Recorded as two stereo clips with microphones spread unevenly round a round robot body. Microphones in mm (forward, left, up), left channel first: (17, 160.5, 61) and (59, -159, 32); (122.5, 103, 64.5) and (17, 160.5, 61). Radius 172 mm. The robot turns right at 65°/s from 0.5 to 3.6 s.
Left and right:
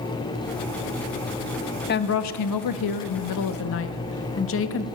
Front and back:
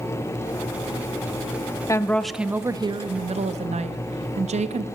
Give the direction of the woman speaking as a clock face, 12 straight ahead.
11 o'clock.